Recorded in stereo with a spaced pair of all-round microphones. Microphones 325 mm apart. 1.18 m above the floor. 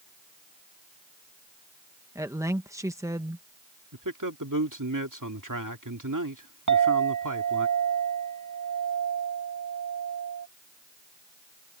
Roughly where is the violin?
I don't hear a violin.